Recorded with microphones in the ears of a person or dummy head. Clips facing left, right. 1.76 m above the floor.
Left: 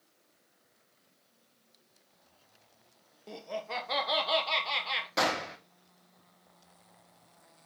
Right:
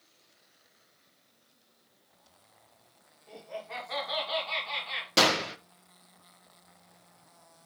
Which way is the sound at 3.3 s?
65° left (ahead or behind).